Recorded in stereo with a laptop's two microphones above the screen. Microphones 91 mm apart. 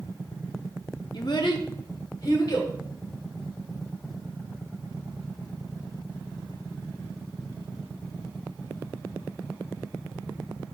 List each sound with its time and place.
1.1 s a child speaking: 55° left (ahead or behind), 0.9 m; by 2.7 s 45° left (ahead or behind), 1.8 m